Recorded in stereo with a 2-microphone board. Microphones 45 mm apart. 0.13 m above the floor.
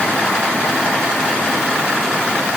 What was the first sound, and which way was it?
Only background noise.